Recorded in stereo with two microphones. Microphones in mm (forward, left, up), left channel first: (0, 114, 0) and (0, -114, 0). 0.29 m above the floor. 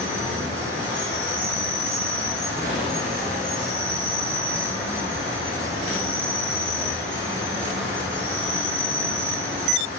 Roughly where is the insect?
Right.